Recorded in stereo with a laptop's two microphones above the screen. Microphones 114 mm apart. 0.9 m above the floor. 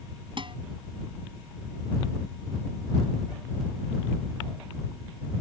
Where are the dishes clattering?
50° right (ahead or behind).